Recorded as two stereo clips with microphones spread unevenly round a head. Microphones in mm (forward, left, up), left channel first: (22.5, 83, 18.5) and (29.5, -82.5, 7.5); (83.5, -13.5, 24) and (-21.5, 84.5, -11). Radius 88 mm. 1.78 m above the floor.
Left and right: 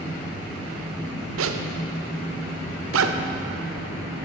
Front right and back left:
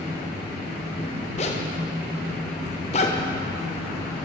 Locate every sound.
1.4 s a zipper: 100° right, 0.6 m